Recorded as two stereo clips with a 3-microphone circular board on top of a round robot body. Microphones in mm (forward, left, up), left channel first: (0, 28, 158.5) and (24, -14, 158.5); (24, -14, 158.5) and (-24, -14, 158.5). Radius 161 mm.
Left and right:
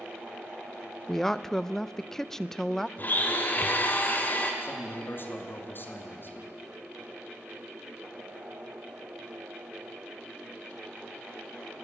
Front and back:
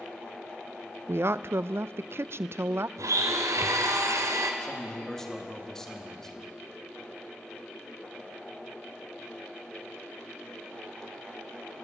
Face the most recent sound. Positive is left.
turn(degrees=80)